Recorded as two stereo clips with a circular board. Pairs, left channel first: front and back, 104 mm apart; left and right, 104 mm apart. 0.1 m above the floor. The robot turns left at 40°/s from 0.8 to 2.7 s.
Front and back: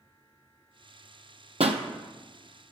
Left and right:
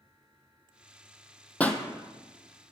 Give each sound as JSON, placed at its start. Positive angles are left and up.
{"t": 1.6, "sound": "a pop", "azimuth_deg": 170, "distance_m": 0.5}